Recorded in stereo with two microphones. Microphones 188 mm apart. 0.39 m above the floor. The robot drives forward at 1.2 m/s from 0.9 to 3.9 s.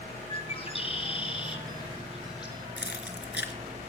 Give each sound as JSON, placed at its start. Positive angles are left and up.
{"t": 0.3, "sound": "a bird", "side_deg": 30, "distance_m": 6.0}
{"t": 2.8, "sound": "keys jangling", "side_deg": 75, "distance_m": 3.0}